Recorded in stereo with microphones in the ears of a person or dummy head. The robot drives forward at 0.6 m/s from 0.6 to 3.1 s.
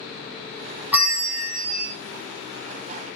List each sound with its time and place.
0.9 s a bell: 10° right (ahead or behind), 0.7 m; by 1.9 s 5° right (ahead or behind), 1.3 m